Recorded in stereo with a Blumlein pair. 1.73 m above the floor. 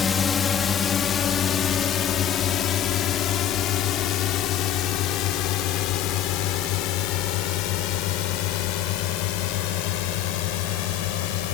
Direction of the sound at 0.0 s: 15° left.